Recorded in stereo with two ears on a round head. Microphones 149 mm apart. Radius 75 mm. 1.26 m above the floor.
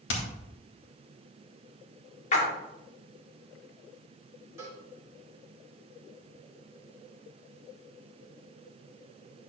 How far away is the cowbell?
About 2.5 m.